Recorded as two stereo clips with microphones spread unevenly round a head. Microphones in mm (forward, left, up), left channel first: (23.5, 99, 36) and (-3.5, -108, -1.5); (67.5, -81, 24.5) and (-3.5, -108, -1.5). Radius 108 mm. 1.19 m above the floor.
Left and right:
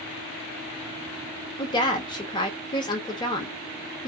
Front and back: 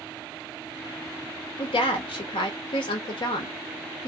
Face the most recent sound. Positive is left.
turn(degrees=10)